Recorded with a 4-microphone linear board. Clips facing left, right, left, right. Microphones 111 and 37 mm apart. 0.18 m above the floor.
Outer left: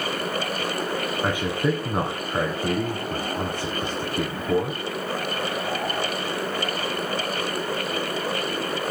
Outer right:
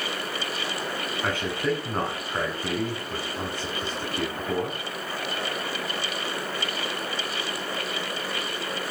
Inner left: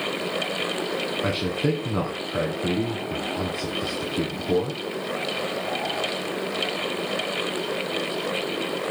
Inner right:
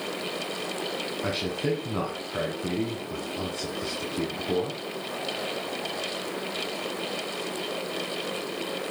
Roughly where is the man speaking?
Centre.